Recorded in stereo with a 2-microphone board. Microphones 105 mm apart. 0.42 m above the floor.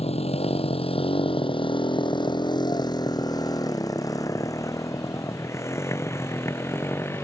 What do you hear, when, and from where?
0.0 s a motorcycle: 80° left; by 7.2 s 20° left (ahead or behind)